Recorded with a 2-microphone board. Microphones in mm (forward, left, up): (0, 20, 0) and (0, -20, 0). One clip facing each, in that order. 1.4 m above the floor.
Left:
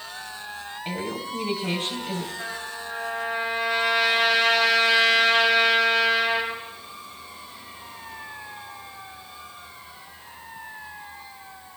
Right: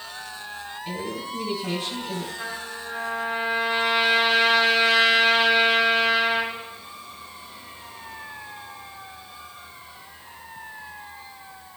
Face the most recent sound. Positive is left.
turn(degrees=-20)  # may be behind; listen again after turning